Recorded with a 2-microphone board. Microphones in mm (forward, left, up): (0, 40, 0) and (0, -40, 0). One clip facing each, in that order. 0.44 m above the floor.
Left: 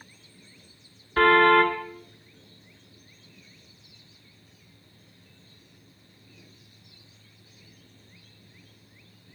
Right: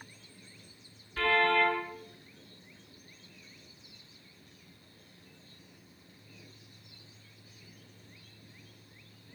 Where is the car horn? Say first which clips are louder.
Left 9 dB; 55° left (ahead or behind), 3.5 m.